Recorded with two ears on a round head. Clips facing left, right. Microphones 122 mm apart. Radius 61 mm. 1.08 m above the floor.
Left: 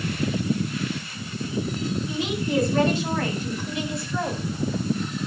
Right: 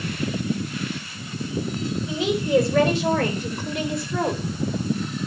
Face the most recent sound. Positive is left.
turn(degrees=-35)  # may be behind; listen again after turning